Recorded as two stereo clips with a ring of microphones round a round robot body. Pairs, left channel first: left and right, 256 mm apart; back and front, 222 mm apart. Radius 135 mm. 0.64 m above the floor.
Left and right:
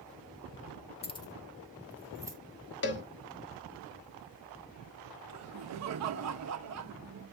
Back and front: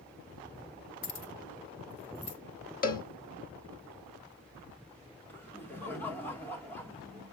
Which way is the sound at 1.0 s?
155° left.